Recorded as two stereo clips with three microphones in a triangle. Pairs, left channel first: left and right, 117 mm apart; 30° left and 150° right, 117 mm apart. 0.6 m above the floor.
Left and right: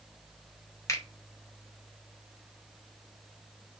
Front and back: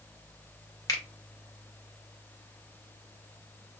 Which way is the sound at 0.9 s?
55° left.